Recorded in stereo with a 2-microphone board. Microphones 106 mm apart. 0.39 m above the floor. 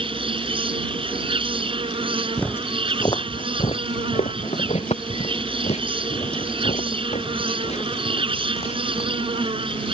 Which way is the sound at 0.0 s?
55° right (ahead or behind).